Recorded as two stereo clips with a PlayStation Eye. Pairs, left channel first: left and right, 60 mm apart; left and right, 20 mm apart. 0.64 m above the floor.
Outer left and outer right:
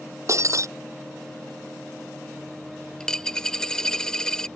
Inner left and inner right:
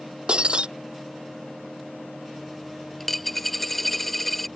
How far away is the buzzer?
I don't hear a buzzer.